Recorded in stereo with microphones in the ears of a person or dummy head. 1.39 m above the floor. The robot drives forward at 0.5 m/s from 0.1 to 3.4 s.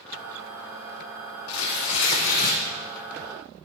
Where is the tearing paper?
75° left (ahead or behind), 1.0 m; by 2.6 s 55° left (ahead or behind), 1.2 m.